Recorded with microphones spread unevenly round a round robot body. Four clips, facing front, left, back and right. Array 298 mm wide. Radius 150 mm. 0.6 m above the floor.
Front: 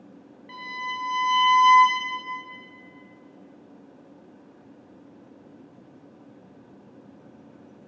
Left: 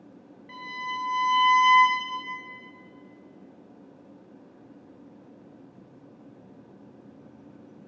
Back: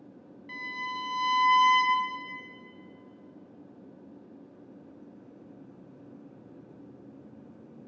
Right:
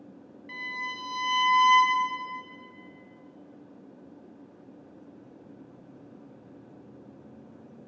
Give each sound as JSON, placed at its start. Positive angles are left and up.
{"t": 0.5, "sound": "a violin", "azimuth_deg": -135, "distance_m": 1.9}